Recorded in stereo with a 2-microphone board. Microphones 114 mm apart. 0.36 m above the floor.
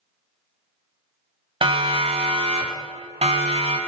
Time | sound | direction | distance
1.6 | a siren | 50° right (ahead or behind) | 3 m